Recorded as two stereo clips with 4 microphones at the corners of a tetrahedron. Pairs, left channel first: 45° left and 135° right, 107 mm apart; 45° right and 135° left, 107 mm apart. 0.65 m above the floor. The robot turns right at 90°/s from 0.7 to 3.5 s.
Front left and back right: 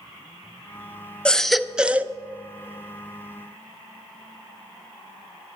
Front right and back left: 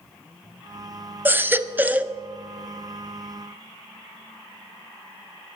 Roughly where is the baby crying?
Left.